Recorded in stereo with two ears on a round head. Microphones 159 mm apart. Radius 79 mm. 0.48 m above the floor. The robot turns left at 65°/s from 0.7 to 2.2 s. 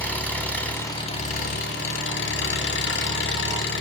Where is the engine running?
170° left, 1.3 m; by 3.8 s 75° left, 1.3 m.